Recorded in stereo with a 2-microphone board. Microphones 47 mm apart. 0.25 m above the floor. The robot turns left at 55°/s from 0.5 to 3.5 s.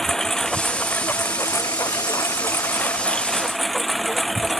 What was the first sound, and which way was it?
A lawn mower, 170° left.